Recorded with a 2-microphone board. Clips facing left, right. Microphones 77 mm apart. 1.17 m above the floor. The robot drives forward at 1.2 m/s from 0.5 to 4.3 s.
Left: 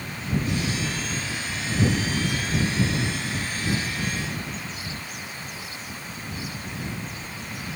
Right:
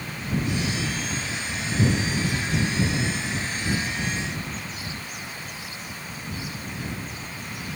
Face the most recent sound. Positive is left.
No sound to turn to.